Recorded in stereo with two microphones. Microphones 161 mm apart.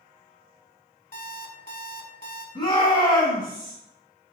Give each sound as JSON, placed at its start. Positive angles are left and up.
{"t": 1.1, "sound": "an alarm clock", "side_deg": 60, "distance_m": 0.8}
{"t": 2.5, "sound": "a shout", "side_deg": 35, "distance_m": 1.9}